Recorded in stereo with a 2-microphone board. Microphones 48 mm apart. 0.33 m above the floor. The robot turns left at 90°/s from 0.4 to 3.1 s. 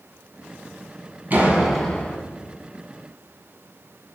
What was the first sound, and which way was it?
A door slam, 140° right.